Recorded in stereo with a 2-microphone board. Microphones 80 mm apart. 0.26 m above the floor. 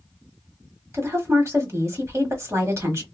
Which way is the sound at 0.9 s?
40° right (ahead or behind).